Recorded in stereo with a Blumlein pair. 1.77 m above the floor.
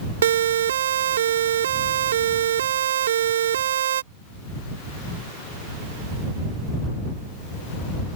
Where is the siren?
60° right.